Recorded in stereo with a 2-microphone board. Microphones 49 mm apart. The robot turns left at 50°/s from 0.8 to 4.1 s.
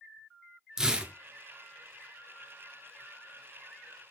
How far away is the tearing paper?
About 0.5 m.